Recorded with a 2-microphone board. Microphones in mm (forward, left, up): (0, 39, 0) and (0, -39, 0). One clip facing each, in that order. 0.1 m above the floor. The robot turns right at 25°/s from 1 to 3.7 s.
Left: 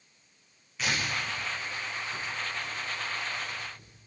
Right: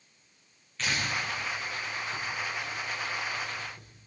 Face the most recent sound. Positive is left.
turn(degrees=-60)  # may be behind; listen again after turning